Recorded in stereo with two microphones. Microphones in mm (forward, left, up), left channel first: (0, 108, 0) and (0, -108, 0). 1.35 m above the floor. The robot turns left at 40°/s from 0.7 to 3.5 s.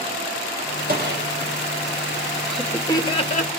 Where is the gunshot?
45° right (ahead or behind), 6 m; by 1.2 s 60° right (ahead or behind), 6 m.